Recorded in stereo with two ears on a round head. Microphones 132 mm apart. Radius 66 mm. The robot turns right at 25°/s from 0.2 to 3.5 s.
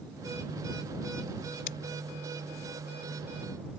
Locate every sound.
1.7 s scissors: 70° left (ahead or behind); by 1.8 s 65° left (ahead or behind)